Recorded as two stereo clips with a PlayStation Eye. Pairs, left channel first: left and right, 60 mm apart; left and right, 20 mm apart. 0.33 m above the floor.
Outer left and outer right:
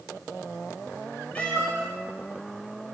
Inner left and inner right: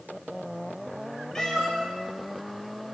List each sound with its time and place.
1.4 s a cat meowing: 25° left (ahead or behind), 0.6 m; by 2.9 s 15° left (ahead or behind), 1.8 m